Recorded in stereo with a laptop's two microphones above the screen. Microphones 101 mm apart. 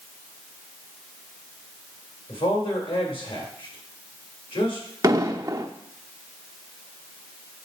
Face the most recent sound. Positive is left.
turn(degrees=-35)  # may be behind; listen again after turning